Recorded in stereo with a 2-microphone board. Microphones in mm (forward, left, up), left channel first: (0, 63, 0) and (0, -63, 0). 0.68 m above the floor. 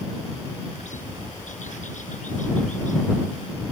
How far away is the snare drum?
No snare drum in this recording.